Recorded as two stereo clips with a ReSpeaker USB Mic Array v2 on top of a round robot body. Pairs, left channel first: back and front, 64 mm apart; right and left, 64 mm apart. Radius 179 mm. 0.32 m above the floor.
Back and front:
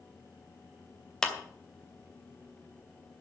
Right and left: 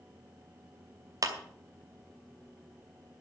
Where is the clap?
100° left, 2.5 m.